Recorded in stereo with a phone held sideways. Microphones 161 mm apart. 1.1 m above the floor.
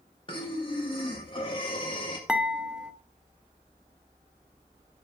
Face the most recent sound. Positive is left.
turn(degrees=-5)  # may be behind; listen again after turning